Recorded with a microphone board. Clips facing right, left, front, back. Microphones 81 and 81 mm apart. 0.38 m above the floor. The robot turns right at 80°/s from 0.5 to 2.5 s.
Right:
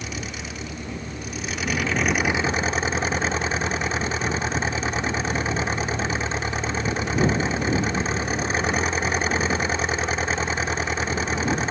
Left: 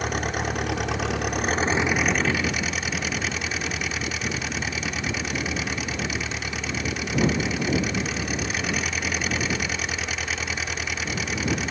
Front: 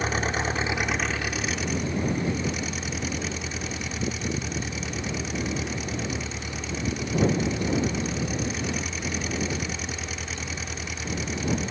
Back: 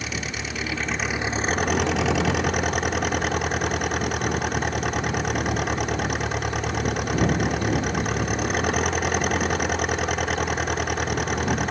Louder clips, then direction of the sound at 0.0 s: Left 7 dB, front 5 dB; 55° left.